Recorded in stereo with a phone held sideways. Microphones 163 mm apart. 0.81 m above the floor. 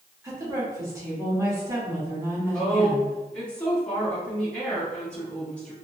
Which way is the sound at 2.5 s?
10° left (ahead or behind).